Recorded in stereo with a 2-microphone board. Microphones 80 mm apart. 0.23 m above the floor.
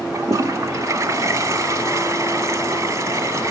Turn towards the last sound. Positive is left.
turn(degrees=-40)  # may be behind; listen again after turning